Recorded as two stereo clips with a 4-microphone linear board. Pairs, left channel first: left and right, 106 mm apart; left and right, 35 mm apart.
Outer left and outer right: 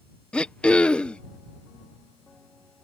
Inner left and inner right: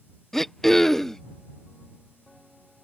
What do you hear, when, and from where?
0.3 s throat clearing: 10° left (ahead or behind)